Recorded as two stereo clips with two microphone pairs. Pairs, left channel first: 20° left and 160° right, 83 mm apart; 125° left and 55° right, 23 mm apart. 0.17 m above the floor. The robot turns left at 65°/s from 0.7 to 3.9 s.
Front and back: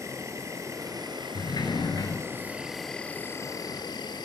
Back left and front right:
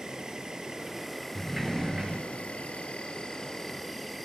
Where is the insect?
115° right, 1.7 m; by 4.2 s 40° left, 1.7 m.